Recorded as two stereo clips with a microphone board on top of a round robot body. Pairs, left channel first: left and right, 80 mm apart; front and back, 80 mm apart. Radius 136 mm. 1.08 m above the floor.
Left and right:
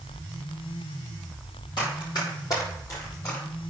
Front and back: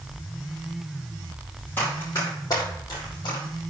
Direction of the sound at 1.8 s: 65° left.